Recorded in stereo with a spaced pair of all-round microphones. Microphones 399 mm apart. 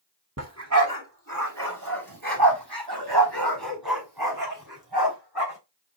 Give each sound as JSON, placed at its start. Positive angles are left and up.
{"t": 0.4, "sound": "a dog barking", "side_deg": -40, "distance_m": 2.5}